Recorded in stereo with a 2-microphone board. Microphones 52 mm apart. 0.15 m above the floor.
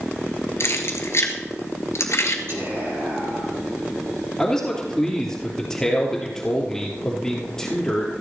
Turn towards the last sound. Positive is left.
turn(degrees=10)  # may be behind; listen again after turning